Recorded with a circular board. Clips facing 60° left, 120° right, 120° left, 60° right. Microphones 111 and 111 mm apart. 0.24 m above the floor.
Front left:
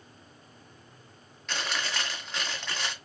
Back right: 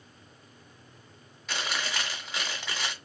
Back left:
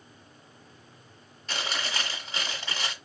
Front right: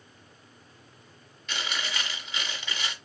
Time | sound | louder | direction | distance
1.5 | chewing | even, back left 1 dB | 160° left | 1.8 m